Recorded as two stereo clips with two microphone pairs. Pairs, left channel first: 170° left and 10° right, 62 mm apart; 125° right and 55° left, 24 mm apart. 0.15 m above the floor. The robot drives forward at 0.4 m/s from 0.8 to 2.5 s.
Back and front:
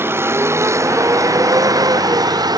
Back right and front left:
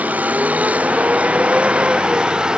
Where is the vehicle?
40° left; by 2.6 s 5° right.